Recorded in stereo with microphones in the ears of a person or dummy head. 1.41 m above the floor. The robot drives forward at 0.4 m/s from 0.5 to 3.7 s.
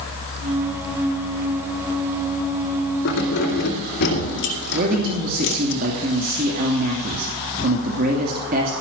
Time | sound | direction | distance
3.0 | keys jangling | 65° left (ahead or behind) | 2.5 m
4.7 | a man speaking | 50° right (ahead or behind) | 2.5 m